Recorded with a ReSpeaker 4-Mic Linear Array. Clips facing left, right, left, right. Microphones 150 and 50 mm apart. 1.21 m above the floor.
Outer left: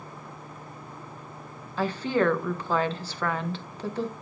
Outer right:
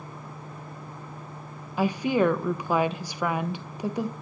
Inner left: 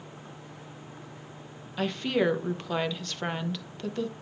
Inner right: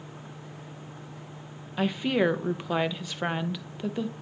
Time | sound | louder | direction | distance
1.8 | a woman speaking | outer right 2 dB, inner right 2 dB | 15° right (ahead or behind) | 0.6 m